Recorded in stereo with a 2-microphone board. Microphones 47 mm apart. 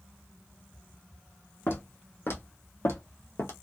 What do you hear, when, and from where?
1.7 s footsteps: 55° left (ahead or behind), 1.9 m; by 3.5 s 60° left (ahead or behind), 1.1 m